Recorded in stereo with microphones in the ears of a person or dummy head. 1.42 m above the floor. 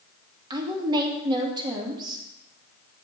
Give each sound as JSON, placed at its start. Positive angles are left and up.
{"t": 0.5, "sound": "a woman speaking", "side_deg": -30, "distance_m": 2.0}